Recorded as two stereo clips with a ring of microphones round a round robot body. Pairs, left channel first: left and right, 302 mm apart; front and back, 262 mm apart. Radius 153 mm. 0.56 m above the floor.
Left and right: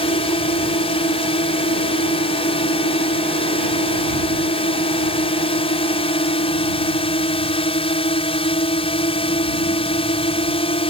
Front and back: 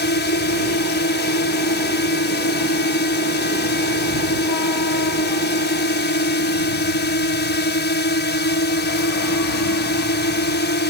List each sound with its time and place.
0.0 s a drone: 25° left